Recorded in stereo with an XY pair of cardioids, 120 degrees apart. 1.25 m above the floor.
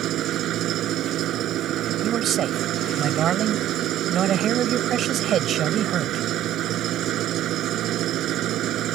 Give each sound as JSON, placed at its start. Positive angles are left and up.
{"t": 0.0, "sound": "an engine running", "azimuth_deg": -65}
{"t": 2.0, "sound": "a man speaking", "azimuth_deg": -50}